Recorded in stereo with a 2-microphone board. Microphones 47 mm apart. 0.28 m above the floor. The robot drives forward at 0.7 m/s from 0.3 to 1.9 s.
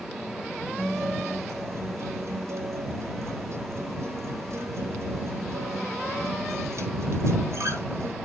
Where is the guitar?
80° right, 1.9 m; by 8.2 s 75° right (ahead or behind), 1.9 m.